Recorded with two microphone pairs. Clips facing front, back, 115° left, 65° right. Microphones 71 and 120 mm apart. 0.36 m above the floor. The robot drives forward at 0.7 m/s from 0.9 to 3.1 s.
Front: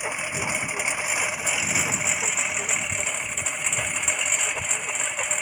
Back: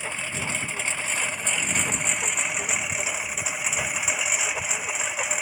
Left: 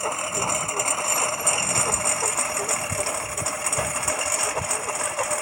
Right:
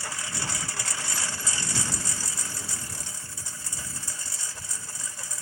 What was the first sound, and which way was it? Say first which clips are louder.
A lawn mower: front 2 dB, left 10 dB; 75° left.